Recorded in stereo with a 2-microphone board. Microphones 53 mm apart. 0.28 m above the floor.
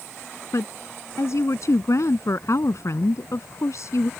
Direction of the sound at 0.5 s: 65° left (ahead or behind).